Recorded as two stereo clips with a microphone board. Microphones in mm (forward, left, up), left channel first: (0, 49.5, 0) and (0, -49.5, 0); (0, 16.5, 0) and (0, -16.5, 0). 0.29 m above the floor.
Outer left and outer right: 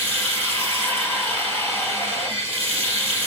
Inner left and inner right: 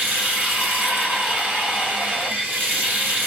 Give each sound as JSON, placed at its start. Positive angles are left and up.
{"t": 0.0, "sound": "running water", "side_deg": -65, "distance_m": 2.0}